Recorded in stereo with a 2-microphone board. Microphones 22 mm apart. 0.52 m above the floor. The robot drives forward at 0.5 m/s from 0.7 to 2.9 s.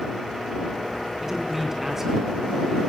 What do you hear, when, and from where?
1.2 s a man speaking: 15° right (ahead or behind), 4.5 m